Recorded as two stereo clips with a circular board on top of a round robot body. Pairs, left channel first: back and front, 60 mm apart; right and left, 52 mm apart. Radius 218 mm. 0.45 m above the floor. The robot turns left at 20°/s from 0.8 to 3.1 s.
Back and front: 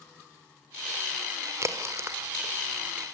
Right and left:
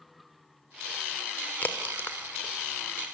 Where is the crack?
35° right, 1.9 m; by 3.0 s 60° right, 1.9 m.